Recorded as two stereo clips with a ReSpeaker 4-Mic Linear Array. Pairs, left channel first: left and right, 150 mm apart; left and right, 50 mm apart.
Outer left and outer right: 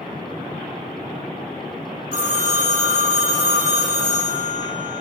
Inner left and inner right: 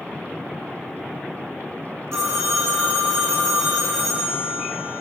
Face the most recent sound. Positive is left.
turn(degrees=-65)  # may be behind; listen again after turning